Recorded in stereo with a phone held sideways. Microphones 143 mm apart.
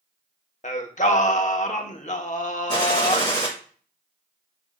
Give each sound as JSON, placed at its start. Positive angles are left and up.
{"t": 0.6, "sound": "singing", "side_deg": 55, "distance_m": 0.9}
{"t": 2.7, "sound": "a gunshot", "side_deg": 30, "distance_m": 4.5}